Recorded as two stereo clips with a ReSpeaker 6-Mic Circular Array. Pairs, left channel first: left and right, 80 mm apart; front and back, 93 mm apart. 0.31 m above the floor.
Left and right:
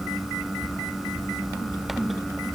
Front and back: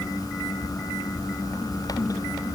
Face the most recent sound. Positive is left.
No sound to turn to.